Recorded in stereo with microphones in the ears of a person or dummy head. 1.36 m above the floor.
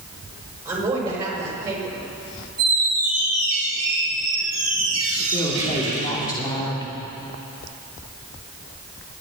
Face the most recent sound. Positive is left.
turn(degrees=25)  # may be behind; listen again after turning